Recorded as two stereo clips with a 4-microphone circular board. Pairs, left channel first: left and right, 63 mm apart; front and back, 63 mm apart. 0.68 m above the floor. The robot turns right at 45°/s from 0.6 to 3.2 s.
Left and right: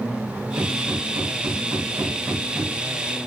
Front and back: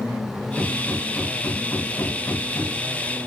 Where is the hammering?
105° right, 6 m; by 2.8 s 5° right, 6 m.